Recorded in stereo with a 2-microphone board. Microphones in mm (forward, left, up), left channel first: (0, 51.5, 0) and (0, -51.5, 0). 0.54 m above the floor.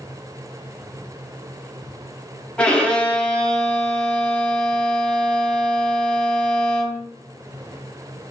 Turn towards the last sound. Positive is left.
turn(degrees=10)  # may be behind; listen again after turning